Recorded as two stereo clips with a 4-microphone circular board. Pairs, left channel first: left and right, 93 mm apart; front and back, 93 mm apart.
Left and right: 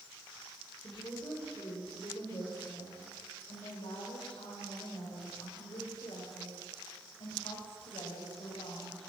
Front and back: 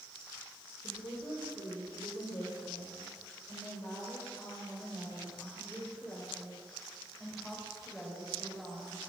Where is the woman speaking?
40° left, 5.5 m; by 9.1 s 90° left, 6.5 m.